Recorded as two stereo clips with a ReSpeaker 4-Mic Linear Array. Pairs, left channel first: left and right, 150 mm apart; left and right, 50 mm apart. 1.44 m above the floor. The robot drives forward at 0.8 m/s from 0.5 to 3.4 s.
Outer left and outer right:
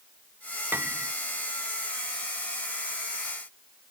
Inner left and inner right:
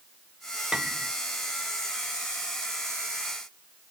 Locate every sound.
0.7 s a piano: 15° right (ahead or behind)